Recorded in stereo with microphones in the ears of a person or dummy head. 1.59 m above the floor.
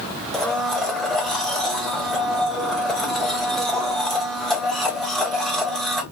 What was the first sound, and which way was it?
A blender, 5° left (ahead or behind).